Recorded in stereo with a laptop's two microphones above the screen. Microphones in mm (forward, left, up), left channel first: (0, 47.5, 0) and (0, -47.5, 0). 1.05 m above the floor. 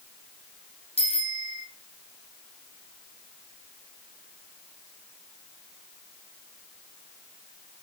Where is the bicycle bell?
85° left, 4.5 m.